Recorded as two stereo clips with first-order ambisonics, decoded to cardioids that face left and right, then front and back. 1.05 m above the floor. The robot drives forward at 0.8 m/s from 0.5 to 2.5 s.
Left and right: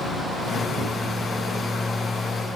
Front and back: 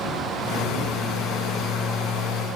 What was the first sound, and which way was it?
Only background noise.